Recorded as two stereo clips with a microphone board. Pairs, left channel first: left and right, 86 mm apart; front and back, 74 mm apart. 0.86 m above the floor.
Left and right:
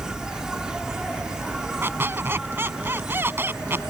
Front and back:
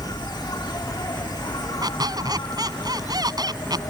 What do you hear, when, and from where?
0.0 s an insect: 10° right
1.8 s a squeak: 155° right